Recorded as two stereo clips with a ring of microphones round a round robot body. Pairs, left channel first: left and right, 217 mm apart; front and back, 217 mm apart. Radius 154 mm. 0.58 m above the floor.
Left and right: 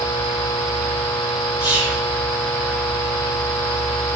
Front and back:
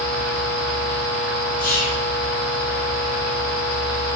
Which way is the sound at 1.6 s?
50° left.